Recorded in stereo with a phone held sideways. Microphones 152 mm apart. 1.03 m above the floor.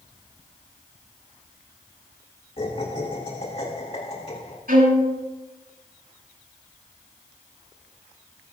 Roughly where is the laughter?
Left.